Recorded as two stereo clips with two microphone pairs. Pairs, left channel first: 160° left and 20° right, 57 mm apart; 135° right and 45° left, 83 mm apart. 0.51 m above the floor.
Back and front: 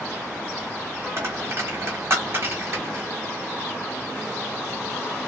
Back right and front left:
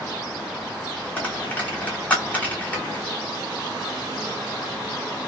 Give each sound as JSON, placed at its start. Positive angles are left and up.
{"t": 1.2, "sound": "a dropped coin", "azimuth_deg": -65, "distance_m": 1.3}